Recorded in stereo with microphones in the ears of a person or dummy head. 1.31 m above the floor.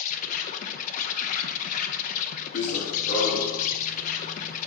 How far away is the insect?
About 0.8 m.